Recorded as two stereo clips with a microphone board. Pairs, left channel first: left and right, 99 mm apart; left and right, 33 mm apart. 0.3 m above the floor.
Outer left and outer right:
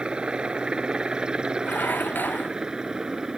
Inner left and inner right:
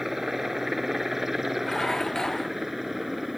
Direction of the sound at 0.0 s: 10° right (ahead or behind).